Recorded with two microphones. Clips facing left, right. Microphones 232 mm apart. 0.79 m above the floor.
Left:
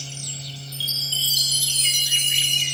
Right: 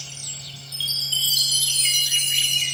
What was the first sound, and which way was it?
A chime, 65° left (ahead or behind).